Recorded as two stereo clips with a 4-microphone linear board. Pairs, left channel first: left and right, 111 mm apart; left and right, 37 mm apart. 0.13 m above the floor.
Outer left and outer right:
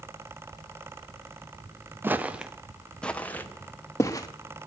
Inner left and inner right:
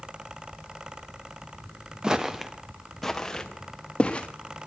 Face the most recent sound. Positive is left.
turn(degrees=30)  # may be behind; listen again after turning